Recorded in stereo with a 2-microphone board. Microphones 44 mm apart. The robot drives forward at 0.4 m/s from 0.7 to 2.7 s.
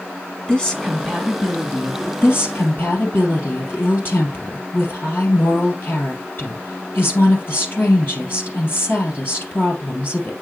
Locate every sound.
0.5 s a woman speaking: 15° left (ahead or behind), 1.6 m; by 2.1 s 10° left (ahead or behind), 1.9 m
2.2 s a woman speaking: 55° left (ahead or behind), 3 m; by 10.3 s 50° left (ahead or behind), 3 m